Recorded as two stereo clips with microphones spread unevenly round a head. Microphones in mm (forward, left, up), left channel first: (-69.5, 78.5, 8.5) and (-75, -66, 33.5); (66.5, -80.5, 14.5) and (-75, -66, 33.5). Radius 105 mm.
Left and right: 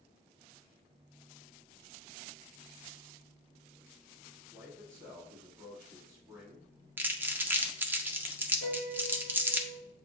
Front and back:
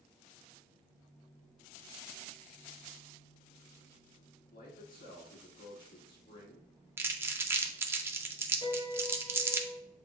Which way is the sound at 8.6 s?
55° right.